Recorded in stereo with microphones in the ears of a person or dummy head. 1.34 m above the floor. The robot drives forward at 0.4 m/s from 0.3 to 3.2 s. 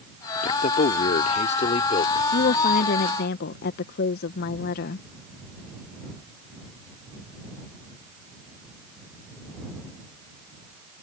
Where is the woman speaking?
55° left (ahead or behind); by 5.0 s 65° left (ahead or behind).